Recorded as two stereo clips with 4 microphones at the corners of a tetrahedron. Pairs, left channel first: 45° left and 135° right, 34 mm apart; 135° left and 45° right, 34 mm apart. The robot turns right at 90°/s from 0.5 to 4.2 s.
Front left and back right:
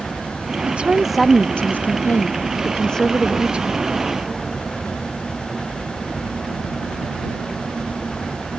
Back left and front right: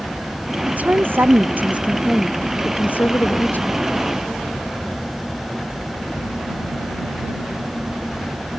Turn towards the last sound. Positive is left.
turn(degrees=-135)